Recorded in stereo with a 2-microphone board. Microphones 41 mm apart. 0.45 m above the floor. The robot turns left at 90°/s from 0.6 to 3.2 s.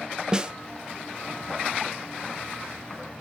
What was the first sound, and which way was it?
A snare drum, 20° right (ahead or behind).